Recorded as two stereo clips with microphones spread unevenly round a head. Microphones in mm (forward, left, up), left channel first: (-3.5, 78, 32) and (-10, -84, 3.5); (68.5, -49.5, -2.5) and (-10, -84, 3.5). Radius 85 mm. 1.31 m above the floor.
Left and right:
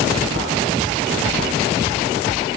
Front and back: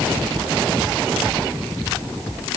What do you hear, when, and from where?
Only background noise.